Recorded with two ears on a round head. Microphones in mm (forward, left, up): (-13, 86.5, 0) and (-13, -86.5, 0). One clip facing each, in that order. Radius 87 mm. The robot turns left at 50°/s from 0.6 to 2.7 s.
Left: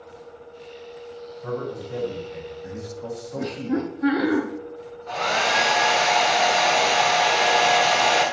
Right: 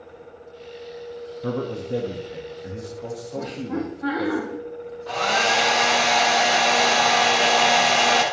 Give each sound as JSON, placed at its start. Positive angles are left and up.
{"t": 1.4, "sound": "a man speaking", "azimuth_deg": -105, "distance_m": 0.7}
{"t": 3.4, "sound": "laughter", "side_deg": 20, "distance_m": 0.7}
{"t": 5.1, "sound": "a hair dryer", "side_deg": -70, "distance_m": 1.0}